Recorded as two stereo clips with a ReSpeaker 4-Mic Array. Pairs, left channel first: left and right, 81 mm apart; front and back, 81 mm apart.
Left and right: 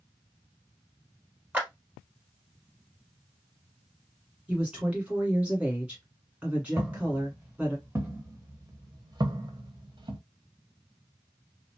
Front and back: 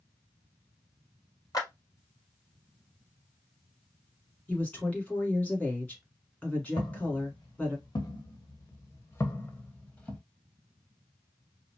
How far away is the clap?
About 1.7 m.